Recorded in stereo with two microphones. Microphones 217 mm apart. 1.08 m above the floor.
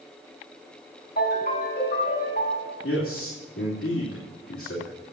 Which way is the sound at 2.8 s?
75° left (ahead or behind).